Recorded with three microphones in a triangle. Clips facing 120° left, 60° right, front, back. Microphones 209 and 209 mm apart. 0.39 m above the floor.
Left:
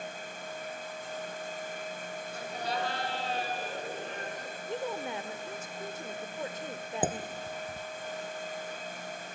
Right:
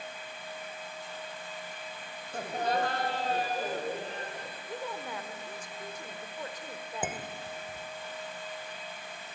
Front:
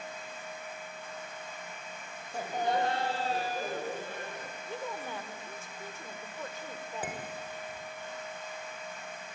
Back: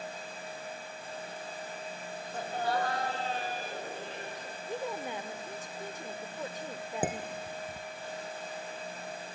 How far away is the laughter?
About 1.8 m.